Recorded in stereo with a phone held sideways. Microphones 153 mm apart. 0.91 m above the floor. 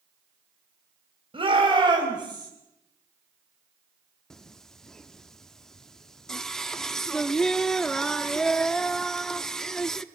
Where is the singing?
5° left (ahead or behind), 0.7 m.